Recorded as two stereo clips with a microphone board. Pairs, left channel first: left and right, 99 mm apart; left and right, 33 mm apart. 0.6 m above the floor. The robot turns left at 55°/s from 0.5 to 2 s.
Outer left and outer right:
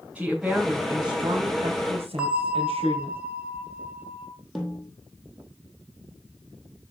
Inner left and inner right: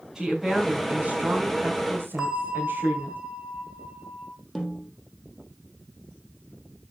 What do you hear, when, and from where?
0.1 s a woman speaking: 10° right, 3 m; by 3.2 s 95° right, 3 m
2.2 s a bell: 10° right (ahead or behind), 2.5 m
4.5 s a snare drum: centre (ahead or behind), 3.5 m